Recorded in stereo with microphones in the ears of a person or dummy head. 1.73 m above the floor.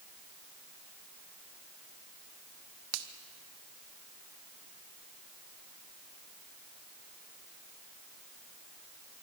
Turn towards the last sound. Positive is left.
turn(degrees=-75)  # may be behind; listen again after turning